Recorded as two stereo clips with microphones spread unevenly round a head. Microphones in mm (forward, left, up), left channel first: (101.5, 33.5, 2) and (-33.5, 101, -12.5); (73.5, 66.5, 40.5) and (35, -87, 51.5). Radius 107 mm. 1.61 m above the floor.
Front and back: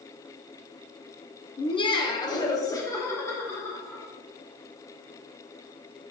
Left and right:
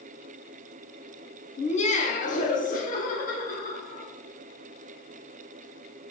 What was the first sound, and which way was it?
Laughter, 30° left.